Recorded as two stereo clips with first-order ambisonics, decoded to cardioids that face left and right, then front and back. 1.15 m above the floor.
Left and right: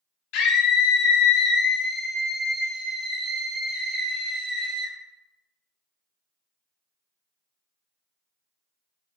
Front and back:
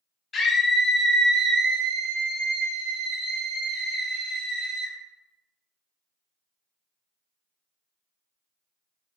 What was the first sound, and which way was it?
A scream, 70° left.